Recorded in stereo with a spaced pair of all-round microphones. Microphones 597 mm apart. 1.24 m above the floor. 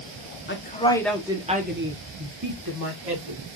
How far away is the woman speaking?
About 1.2 m.